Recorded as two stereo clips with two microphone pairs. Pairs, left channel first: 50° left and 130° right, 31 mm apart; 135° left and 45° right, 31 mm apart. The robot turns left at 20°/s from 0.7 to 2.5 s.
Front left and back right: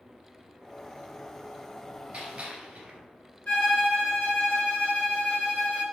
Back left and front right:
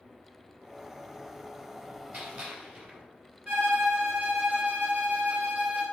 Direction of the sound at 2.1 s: 70° right.